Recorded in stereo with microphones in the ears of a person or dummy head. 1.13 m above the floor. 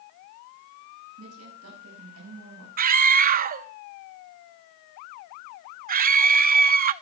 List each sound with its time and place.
1.2 s a woman speaking: 85° right, 7.5 m
2.8 s a scream: 45° right (ahead or behind), 0.8 m